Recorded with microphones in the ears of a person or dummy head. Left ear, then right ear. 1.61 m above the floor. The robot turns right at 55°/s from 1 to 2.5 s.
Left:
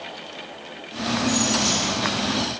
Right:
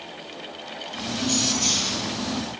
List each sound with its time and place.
1.2 s keys jangling: 160° left, 2.5 m; by 2.4 s 130° right, 2.5 m